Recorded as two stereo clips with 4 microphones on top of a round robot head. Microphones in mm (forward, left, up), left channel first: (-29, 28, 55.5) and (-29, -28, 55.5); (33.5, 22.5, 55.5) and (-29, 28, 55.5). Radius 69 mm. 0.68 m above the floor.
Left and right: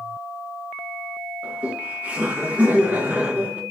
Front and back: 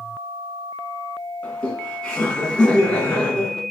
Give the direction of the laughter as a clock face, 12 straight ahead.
2 o'clock.